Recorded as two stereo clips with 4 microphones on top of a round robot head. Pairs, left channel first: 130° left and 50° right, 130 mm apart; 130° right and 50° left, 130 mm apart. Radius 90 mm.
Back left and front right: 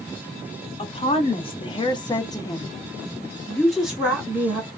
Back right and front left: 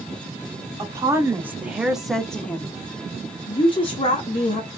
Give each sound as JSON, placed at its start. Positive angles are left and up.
{"t": 0.8, "sound": "a woman speaking", "azimuth_deg": 105, "distance_m": 1.5}